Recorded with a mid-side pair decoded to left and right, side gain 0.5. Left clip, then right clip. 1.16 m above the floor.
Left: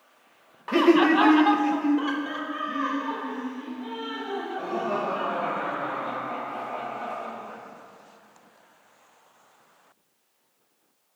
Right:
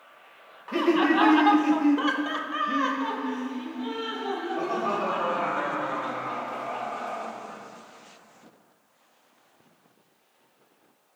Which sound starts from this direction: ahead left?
Laughter, at 0.7 s.